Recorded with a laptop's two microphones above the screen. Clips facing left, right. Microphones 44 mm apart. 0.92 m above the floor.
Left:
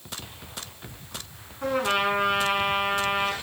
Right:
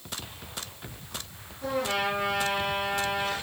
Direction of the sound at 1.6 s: 55° left (ahead or behind).